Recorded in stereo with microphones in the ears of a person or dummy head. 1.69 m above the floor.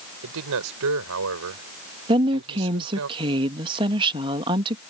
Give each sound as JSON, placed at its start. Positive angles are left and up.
{"t": 0.2, "sound": "a man speaking", "side_deg": -60}
{"t": 2.1, "sound": "a woman speaking", "side_deg": -30}